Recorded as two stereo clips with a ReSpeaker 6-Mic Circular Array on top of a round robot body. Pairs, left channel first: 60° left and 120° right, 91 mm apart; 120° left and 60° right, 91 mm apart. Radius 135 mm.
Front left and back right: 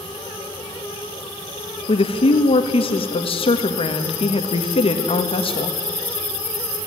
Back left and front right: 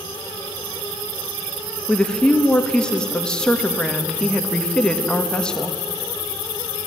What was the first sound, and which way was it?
A woman speaking, 40° left.